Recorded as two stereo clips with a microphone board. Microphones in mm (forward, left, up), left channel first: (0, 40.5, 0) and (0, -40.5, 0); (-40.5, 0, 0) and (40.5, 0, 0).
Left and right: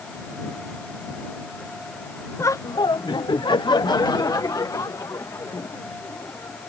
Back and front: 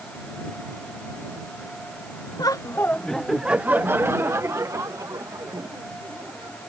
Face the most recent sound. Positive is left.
turn(degrees=40)